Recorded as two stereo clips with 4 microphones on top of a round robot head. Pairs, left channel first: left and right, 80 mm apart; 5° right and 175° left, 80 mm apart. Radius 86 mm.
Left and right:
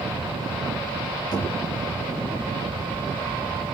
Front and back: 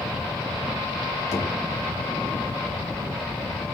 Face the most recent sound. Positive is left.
turn(degrees=40)